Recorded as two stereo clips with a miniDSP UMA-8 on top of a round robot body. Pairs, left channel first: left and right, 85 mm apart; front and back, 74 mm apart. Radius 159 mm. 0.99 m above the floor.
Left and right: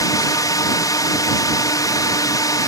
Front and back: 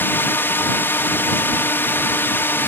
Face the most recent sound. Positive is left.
turn(degrees=55)